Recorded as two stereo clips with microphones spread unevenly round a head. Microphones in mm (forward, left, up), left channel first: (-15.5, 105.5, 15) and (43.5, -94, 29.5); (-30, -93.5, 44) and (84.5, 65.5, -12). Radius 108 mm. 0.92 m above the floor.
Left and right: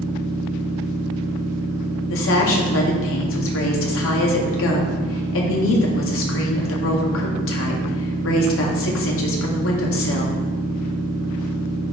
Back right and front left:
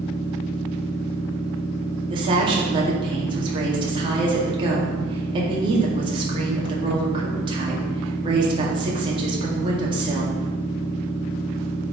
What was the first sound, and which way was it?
A machine running, 70° right.